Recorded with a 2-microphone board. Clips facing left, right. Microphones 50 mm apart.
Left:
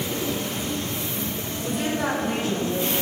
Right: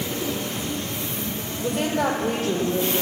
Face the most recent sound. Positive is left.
turn(degrees=-65)  # may be behind; listen again after turning